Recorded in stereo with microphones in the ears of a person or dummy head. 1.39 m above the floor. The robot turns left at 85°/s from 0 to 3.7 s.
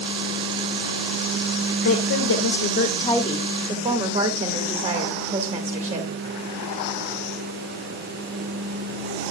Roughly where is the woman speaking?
Behind left.